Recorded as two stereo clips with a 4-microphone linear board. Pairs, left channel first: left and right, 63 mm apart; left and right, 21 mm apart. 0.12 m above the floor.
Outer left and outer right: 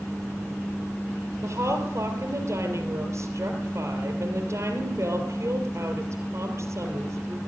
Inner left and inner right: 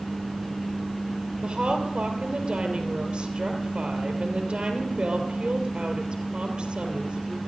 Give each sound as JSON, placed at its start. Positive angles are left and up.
{"t": 1.4, "sound": "a woman speaking", "side_deg": -55, "distance_m": 3.0}